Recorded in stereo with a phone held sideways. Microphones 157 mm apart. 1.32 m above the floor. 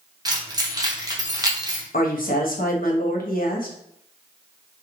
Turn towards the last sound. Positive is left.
turn(degrees=65)  # may be behind; listen again after turning